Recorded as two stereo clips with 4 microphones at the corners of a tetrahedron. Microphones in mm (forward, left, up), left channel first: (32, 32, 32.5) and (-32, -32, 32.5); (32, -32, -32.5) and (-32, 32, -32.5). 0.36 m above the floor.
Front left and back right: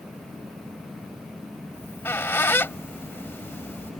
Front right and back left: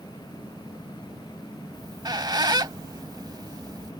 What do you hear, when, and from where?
1.7 s a squeak: 105° left